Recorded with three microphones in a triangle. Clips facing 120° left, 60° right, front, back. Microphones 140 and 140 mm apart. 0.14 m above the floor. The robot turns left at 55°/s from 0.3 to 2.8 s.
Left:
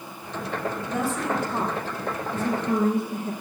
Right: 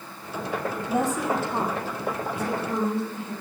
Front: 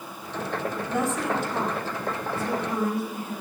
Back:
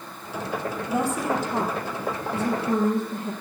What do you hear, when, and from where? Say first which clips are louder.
0.9 s a woman speaking: right 3 dB, back 2 dB; 115° right, 3 m; by 3.3 s 140° left, 3 m